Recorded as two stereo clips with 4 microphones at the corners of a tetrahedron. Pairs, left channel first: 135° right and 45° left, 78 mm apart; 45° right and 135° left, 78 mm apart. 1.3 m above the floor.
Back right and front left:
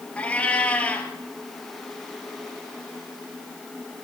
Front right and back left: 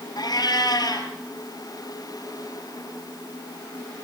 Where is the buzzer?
I don't hear a buzzer.